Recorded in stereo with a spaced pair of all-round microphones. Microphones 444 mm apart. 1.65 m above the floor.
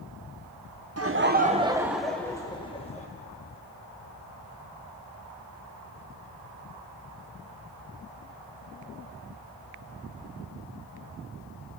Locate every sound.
1.0 s laughter: 35° right (ahead or behind), 0.7 m; by 3.1 s 15° left (ahead or behind), 1.4 m